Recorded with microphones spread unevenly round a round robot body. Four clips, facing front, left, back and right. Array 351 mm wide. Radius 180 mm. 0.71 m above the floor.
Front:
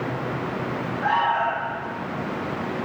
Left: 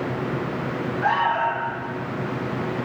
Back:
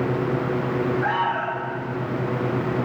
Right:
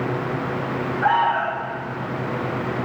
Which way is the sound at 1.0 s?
140° left.